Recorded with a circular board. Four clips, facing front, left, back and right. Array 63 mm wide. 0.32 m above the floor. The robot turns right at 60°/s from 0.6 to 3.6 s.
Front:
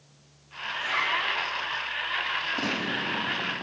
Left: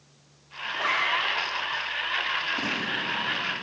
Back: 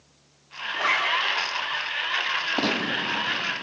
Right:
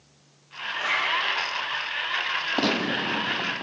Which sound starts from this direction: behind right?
A gunshot, at 2.6 s.